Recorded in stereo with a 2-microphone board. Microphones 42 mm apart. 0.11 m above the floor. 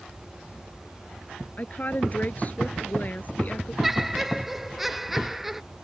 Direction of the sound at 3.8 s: 5° right (ahead or behind).